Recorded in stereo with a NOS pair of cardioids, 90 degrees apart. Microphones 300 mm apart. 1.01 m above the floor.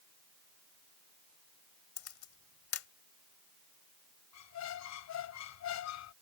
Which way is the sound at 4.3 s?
70° left.